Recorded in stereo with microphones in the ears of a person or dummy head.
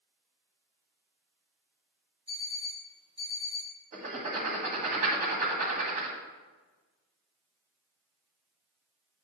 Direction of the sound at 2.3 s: 30° right (ahead or behind).